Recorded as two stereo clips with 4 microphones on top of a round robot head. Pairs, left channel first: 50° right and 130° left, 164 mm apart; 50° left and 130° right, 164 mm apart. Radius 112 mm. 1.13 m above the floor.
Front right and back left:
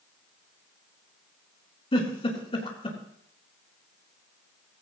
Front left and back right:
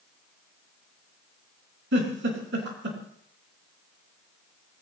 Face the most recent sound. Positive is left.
turn(degrees=-110)